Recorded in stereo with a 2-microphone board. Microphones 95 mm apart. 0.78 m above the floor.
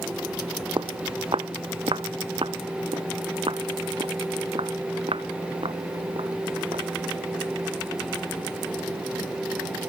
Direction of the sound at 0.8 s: 60° right (ahead or behind).